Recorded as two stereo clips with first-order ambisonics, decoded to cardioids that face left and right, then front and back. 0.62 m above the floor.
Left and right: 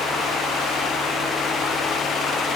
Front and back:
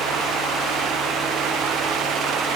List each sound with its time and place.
Only background noise.